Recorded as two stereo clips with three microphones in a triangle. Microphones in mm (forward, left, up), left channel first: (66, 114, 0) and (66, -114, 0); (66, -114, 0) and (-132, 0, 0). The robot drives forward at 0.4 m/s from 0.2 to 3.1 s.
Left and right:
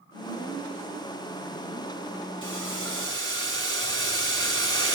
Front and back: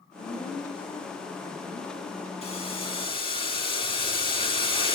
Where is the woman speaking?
95° right, 5 m; by 2.3 s 105° right, 5 m.